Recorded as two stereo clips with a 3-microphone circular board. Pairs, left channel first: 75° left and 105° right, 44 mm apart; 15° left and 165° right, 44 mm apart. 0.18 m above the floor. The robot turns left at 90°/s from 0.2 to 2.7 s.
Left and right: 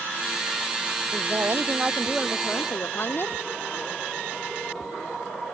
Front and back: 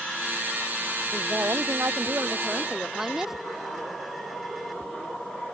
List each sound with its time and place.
1.1 s a woman speaking: 105° right; by 3.4 s 115° left